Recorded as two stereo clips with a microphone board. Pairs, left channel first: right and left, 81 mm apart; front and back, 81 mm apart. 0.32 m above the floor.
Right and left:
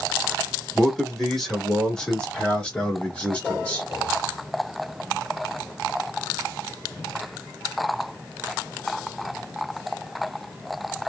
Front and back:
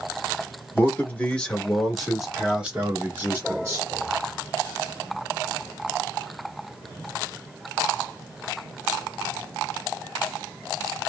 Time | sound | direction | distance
0.8 | a man speaking | 5° right | 1.5 m